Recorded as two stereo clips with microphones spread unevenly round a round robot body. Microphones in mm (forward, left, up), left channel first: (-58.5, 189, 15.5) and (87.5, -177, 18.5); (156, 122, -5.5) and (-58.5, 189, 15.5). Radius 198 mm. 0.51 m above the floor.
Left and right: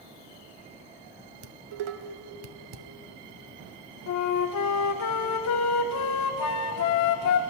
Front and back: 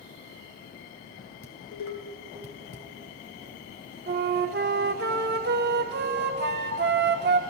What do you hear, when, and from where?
1.4 s dishes clattering: 50° right, 0.9 m
4.1 s a flute: 140° left, 0.7 m